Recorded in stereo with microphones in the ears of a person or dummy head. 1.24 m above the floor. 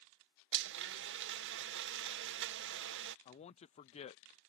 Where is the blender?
60° right (ahead or behind).